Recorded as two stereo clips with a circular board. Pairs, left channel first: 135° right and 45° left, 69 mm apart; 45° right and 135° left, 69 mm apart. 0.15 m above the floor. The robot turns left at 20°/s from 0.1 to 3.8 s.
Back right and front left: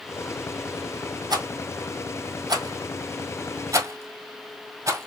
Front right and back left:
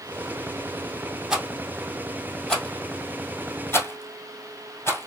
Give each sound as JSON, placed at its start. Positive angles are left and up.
{"t": 1.3, "sound": "a rattle", "azimuth_deg": 55, "distance_m": 1.8}